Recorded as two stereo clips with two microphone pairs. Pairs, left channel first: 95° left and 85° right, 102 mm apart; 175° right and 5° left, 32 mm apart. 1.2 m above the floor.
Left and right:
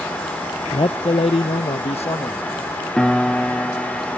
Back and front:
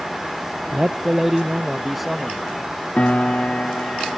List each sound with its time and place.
0.7 s a man speaking: 60° left; by 2.5 s 100° left
3.0 s a piano: 170° left